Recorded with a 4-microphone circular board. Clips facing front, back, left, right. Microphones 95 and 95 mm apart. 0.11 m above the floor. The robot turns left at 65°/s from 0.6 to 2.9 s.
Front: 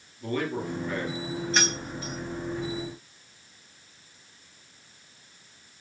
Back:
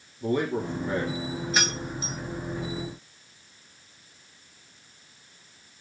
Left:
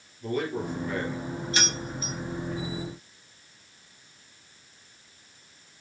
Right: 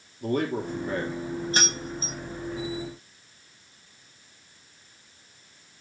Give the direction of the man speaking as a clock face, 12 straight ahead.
4 o'clock.